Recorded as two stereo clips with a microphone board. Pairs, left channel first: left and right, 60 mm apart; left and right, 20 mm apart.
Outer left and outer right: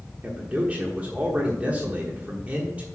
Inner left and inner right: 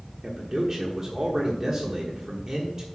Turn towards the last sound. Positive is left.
turn(degrees=-25)  # may be behind; listen again after turning